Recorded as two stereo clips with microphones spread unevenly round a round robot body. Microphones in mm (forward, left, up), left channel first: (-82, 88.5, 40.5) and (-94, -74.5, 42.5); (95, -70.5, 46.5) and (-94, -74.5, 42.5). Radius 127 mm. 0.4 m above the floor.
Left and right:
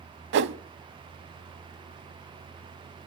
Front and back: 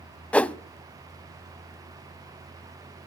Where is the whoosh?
80° right, 0.5 m.